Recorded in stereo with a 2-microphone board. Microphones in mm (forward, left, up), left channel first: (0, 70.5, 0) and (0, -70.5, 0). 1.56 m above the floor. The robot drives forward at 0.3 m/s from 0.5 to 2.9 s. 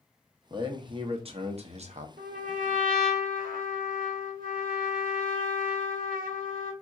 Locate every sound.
0.5 s a man speaking: 35° right (ahead or behind), 0.9 m; by 2.1 s 55° right (ahead or behind), 0.6 m
2.2 s a trumpet: 70° right (ahead or behind), 0.9 m; by 6.7 s 85° right, 0.8 m